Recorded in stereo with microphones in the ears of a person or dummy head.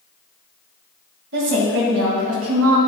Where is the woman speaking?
70° right (ahead or behind), 1.8 m; by 2.8 s 85° right, 2 m.